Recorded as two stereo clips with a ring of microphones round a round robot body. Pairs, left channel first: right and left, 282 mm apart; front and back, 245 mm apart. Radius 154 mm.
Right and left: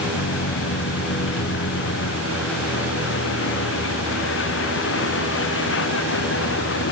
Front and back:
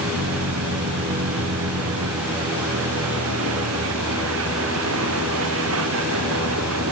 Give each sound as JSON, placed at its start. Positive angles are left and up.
{"t": 0.0, "sound": "a vehicle", "azimuth_deg": -140}